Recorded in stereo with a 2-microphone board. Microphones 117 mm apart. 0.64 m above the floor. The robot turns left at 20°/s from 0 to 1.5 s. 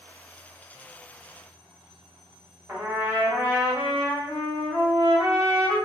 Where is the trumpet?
25° right (ahead or behind), 1.0 m.